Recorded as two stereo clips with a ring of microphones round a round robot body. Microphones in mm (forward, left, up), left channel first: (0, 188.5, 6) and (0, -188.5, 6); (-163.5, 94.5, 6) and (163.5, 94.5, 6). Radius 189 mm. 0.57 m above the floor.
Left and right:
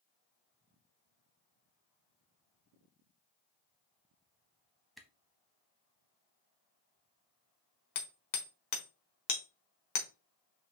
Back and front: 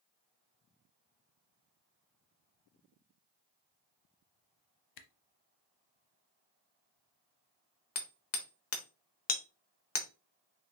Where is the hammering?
135° left, 1.1 m.